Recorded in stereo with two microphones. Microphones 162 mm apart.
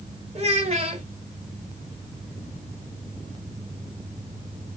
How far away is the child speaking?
About 1.0 m.